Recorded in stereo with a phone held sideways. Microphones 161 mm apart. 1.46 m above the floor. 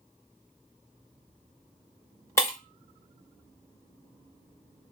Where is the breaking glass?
20° left (ahead or behind), 1.2 m.